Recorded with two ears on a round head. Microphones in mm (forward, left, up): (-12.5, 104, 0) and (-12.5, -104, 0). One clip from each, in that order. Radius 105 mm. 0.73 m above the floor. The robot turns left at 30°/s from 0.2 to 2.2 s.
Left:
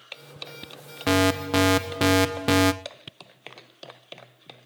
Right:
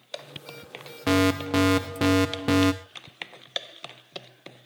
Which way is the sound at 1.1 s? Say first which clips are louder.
Left 1 dB; 15° left (ahead or behind).